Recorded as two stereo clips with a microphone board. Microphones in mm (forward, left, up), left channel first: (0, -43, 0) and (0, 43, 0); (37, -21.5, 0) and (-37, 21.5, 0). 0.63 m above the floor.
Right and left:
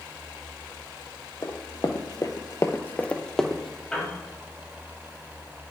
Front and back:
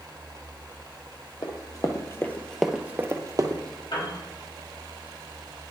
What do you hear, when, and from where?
1.4 s running footsteps: 55° right, 1.3 m; by 3.8 s 175° left, 1.3 m
3.9 s a piano: 10° right, 3.5 m